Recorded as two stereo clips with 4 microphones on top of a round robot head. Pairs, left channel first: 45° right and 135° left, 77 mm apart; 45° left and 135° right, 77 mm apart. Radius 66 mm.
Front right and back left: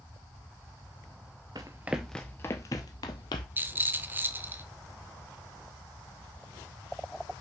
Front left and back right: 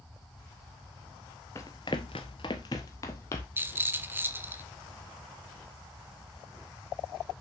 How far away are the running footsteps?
About 0.8 m.